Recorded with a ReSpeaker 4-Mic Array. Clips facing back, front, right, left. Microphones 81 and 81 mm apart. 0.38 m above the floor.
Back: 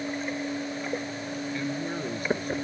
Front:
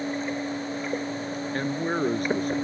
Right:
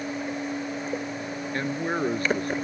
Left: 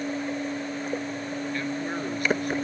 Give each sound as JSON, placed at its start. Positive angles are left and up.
{"t": 1.5, "sound": "a man speaking", "azimuth_deg": -35}